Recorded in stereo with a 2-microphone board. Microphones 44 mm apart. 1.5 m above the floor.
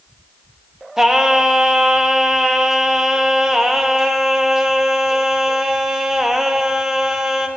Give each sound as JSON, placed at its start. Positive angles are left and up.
{"t": 1.0, "sound": "singing", "side_deg": -15, "distance_m": 0.5}